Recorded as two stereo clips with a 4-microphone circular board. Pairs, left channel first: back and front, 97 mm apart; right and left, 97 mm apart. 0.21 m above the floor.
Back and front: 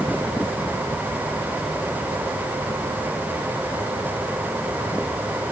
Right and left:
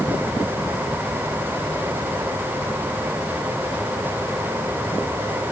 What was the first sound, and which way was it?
Only background noise.